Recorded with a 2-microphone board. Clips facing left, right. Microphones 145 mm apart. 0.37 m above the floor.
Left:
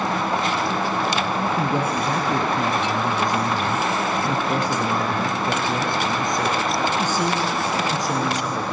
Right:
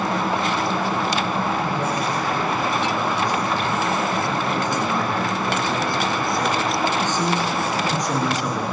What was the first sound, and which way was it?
A man speaking, 65° left (ahead or behind).